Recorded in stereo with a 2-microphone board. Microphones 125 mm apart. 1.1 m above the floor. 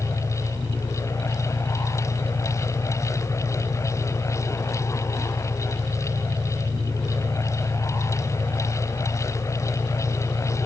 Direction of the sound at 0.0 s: 40° left (ahead or behind).